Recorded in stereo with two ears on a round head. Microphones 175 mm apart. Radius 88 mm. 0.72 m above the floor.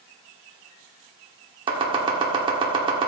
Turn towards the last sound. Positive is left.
turn(degrees=-25)  # may be behind; listen again after turning